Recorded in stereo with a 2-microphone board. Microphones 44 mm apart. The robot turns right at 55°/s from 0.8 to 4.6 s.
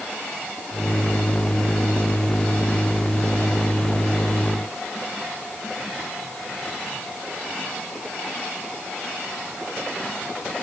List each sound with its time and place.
Only background noise.